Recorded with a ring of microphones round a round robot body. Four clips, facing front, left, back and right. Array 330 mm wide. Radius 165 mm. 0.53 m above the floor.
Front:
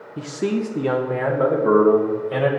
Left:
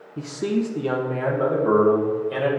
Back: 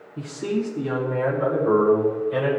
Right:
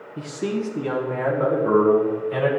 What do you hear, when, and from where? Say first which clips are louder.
0.2 s a man speaking: left 2 dB, front 3 dB; 10° left, 0.7 m; by 2.5 s 15° left, 2 m